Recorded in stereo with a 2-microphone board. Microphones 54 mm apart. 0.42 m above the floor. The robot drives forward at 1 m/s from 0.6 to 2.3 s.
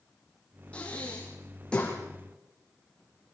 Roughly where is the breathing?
Left.